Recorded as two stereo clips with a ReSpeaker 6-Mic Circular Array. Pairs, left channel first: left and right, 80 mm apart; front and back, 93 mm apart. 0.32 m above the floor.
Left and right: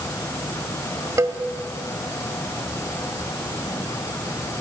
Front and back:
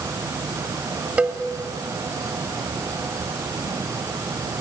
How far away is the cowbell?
About 1.3 m.